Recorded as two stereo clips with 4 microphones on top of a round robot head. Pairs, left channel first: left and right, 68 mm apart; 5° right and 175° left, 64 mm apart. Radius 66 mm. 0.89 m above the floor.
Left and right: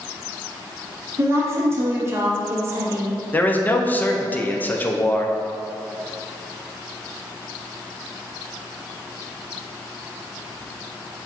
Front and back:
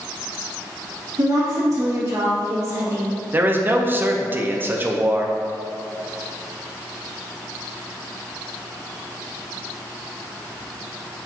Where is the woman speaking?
140° right, 1.1 m.